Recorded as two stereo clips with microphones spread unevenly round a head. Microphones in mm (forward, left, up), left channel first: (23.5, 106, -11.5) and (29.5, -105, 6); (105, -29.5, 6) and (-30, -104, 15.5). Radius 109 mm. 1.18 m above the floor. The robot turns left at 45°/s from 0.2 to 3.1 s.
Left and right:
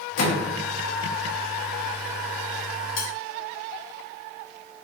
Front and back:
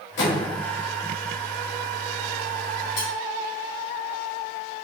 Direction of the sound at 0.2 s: 60° left.